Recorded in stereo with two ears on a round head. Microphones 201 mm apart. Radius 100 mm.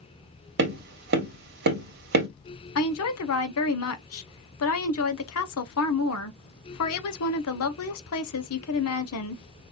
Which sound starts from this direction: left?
A woman speaking, at 2.8 s.